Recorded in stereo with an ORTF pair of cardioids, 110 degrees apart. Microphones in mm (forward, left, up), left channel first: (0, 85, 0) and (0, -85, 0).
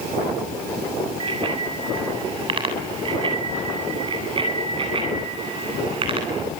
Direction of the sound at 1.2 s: 30° right.